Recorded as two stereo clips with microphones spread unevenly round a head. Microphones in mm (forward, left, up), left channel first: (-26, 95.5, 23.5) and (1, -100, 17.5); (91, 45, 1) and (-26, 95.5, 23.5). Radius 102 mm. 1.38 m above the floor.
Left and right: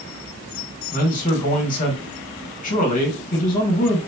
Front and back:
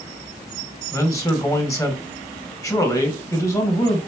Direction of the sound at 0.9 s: 45° left.